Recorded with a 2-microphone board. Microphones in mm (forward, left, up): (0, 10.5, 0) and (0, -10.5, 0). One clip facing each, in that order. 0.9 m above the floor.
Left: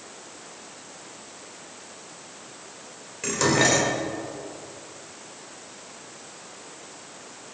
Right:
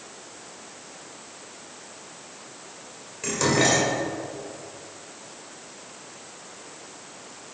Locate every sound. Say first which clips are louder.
3.2 s dishes clattering: left 1 dB; 5° left (ahead or behind), 2.5 m